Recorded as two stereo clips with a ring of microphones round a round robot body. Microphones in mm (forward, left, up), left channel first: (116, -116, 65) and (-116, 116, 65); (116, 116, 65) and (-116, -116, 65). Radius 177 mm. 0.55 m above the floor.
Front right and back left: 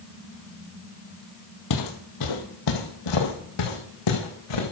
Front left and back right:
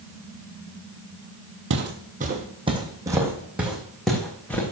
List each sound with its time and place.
1.7 s footsteps: 80° right, 1.4 m; by 4.7 s 40° right, 3 m